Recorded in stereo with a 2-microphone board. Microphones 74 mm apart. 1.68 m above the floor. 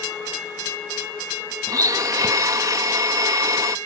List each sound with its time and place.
1.7 s a blender: 50° right (ahead or behind)